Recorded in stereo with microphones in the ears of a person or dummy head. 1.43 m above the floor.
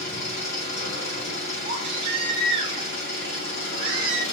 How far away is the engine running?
About 0.8 m.